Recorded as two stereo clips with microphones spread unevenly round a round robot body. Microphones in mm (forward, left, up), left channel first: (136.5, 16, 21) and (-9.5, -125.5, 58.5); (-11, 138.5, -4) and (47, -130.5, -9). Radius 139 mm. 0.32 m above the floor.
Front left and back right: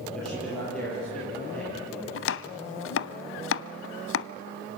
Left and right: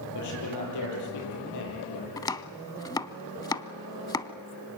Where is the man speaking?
130° left, 9.5 m.